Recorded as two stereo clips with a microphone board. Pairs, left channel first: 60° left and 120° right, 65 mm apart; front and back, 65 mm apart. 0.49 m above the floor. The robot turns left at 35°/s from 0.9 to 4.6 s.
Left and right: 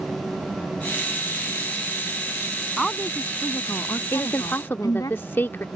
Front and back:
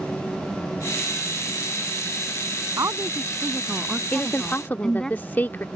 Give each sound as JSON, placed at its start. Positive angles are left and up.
{"t": 2.8, "sound": "a woman speaking", "azimuth_deg": 145}
{"t": 4.1, "sound": "a woman speaking", "azimuth_deg": 55}